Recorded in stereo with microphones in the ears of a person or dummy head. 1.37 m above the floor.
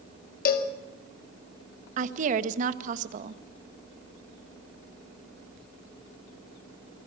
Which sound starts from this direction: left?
A cowbell, at 0.5 s.